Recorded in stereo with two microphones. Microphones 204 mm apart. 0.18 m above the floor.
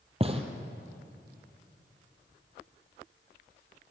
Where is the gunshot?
30° right (ahead or behind), 1.8 m.